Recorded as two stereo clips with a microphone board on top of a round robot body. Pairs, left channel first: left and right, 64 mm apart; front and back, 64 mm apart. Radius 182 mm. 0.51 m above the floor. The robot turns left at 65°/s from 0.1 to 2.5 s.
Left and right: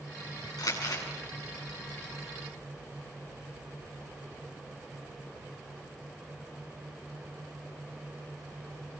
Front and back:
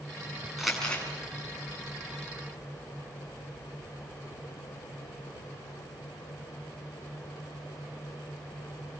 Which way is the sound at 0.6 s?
95° left.